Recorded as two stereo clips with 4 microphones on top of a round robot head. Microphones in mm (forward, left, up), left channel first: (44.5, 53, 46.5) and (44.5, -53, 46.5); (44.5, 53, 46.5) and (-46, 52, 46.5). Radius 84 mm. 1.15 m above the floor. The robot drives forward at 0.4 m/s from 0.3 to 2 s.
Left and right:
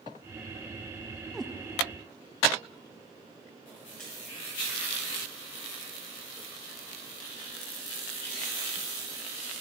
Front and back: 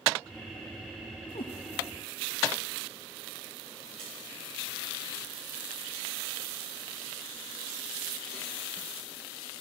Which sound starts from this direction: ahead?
A cat meowing, at 1.3 s.